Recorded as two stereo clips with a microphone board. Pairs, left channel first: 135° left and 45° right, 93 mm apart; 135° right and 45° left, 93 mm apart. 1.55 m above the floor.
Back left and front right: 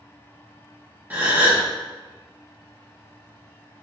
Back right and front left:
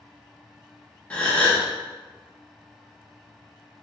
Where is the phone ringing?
No phone ringing in this recording.